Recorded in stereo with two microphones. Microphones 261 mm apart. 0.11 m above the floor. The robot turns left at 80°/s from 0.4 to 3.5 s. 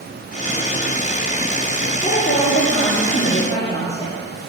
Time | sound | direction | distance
2.0 | a woman speaking | 155° left | 1.8 m